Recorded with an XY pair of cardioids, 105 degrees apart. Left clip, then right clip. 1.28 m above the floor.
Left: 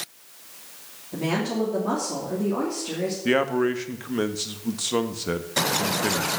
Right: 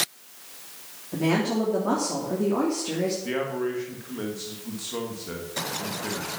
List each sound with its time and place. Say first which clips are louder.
1.1 s a woman speaking: right 2 dB; 15° right, 3 m
3.2 s a man speaking: left 6 dB; 65° left, 1.2 m